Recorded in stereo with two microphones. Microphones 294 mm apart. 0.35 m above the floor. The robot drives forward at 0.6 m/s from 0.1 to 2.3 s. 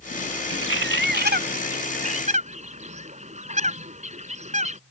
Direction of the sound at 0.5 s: 45° right (ahead or behind).